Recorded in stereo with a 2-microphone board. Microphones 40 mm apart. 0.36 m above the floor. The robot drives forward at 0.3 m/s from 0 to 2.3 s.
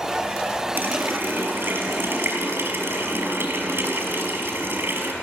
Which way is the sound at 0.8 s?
60° right (ahead or behind).